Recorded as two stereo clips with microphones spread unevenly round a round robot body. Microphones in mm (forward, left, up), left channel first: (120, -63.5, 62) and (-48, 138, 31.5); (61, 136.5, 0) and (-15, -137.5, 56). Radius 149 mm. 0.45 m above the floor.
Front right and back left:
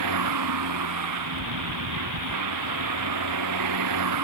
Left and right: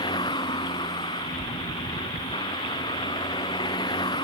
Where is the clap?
No clap in this recording.